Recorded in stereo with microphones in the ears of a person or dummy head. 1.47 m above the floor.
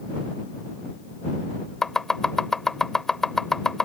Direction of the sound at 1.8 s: Centre (ahead or behind).